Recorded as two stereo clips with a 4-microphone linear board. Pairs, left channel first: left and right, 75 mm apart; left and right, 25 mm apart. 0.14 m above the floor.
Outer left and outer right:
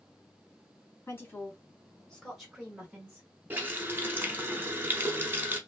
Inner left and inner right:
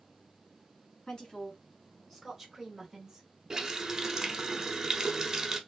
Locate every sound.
1.1 s a woman speaking: 35° left (ahead or behind), 1.6 m; by 3.3 s 20° right (ahead or behind), 1.4 m
3.5 s a running tap: 25° right (ahead or behind), 0.7 m